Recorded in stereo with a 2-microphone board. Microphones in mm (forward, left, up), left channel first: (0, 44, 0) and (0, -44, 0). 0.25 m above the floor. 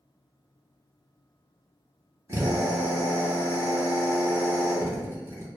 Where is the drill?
30° right (ahead or behind), 1.1 m.